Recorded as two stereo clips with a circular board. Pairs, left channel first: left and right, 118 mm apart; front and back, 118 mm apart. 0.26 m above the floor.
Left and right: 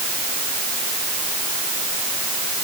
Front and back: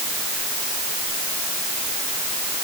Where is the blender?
I don't hear a blender.